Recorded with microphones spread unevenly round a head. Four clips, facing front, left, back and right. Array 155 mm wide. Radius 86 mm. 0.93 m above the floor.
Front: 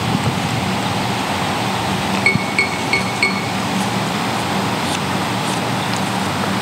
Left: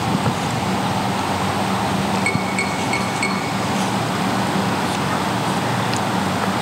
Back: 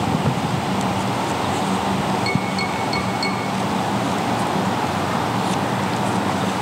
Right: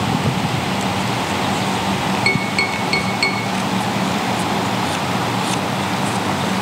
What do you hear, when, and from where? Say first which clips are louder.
2.3 s tapping: right 1 dB, front 2 dB; 30° right, 5 m